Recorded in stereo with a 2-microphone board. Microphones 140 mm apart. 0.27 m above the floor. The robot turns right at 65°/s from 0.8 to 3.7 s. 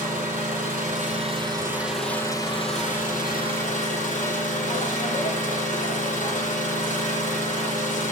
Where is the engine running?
75° right, 6.5 m; by 8.1 s 115° left, 6.5 m.